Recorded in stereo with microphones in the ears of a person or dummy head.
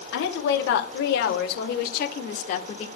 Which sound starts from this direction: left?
A woman speaking, at 0.1 s.